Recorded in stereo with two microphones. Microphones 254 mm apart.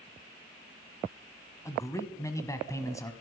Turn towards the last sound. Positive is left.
turn(degrees=10)  # may be behind; listen again after turning